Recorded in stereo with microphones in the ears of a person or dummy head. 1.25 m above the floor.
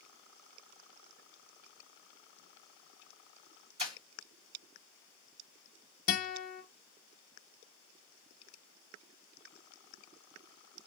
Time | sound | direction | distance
3.8 | breaking glass | 35° right (ahead or behind) | 1.9 m
6.1 | a guitar | 45° left (ahead or behind) | 0.7 m